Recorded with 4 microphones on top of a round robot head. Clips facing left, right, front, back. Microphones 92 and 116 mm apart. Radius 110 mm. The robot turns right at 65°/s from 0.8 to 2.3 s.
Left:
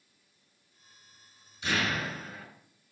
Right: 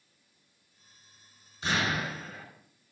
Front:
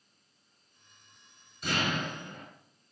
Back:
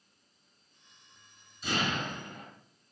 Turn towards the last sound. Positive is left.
turn(degrees=5)